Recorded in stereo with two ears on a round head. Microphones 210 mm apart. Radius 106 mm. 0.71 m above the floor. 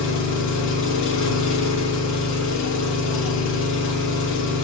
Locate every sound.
0.0 s an engine running: 55° left (ahead or behind), 0.7 m